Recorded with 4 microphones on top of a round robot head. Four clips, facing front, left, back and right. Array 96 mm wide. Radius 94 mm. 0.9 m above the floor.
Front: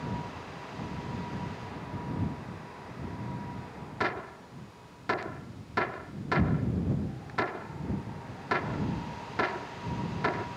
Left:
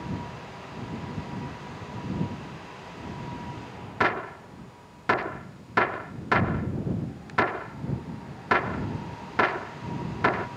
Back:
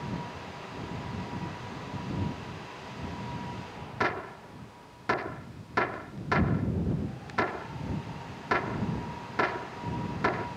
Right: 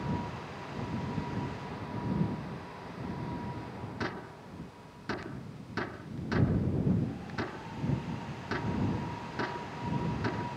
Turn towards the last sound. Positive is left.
turn(degrees=95)